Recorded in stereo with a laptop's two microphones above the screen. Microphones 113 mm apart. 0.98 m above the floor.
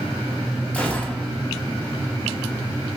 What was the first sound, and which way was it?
A gunshot, 10° left (ahead or behind).